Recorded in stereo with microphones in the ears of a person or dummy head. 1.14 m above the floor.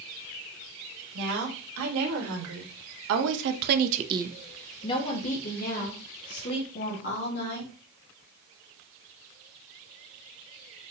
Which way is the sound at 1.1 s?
85° right.